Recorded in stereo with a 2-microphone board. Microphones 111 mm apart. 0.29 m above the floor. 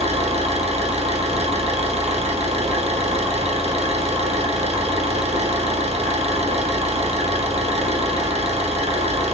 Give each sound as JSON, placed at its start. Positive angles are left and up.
{"t": 0.0, "sound": "an engine running", "side_deg": -70, "distance_m": 2.5}